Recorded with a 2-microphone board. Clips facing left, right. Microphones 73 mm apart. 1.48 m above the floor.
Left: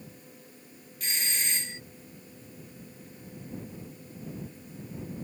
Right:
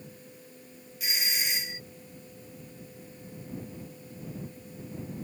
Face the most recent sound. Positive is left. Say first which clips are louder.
# right 1 dB
turn(degrees=-10)  # may be behind; listen again after turning